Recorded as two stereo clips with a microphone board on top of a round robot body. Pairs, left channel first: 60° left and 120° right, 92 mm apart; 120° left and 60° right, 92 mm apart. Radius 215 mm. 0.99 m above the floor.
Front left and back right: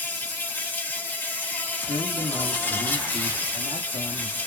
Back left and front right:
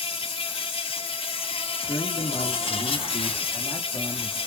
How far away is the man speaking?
About 1.6 m.